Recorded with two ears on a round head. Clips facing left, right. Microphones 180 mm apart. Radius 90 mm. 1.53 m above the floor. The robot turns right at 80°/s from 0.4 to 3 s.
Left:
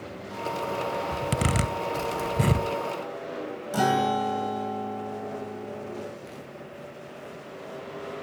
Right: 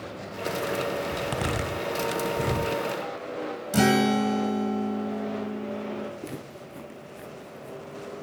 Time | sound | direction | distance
1.1 | a zipper | 10° left (ahead or behind) | 2.5 m
3.7 | a guitar | 30° right (ahead or behind) | 1.4 m
6.2 | footsteps | 60° right (ahead or behind) | 8 m